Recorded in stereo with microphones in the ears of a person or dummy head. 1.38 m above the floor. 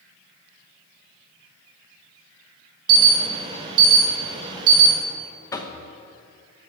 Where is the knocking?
20° left (ahead or behind), 0.8 m.